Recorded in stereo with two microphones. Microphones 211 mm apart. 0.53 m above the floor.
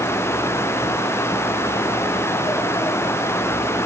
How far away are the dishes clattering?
I don't hear dishes clattering.